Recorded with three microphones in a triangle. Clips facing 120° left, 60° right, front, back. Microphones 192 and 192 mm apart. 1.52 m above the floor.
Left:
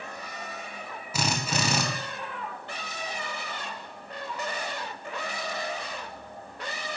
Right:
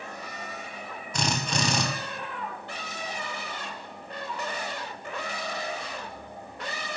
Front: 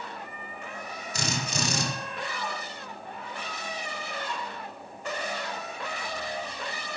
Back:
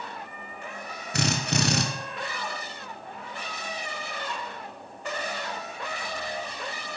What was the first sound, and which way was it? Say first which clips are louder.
A drill: even, back 5 dB; 155° right.